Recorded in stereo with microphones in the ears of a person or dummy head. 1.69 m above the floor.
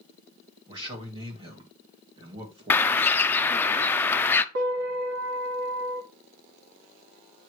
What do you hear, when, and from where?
0.7 s a man speaking: 25° right (ahead or behind), 2.5 m
2.7 s a bird: 10° left (ahead or behind), 0.6 m
4.5 s a piano: 55° right (ahead or behind), 1.6 m